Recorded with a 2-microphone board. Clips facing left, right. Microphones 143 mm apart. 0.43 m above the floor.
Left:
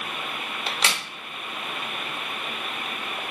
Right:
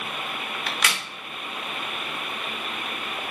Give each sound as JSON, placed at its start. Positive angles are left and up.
{"t": 0.7, "sound": "a crack", "side_deg": 30, "distance_m": 0.5}